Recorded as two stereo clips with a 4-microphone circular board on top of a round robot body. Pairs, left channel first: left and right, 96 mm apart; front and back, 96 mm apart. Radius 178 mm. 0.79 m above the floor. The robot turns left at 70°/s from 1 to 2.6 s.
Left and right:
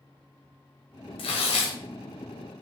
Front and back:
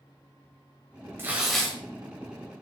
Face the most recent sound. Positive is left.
turn(degrees=15)